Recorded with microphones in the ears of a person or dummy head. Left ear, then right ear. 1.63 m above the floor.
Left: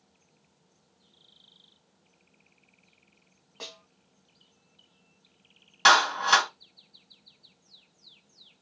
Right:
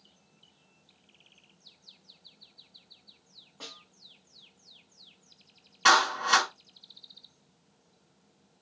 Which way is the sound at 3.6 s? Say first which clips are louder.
Left 3 dB; 75° left (ahead or behind).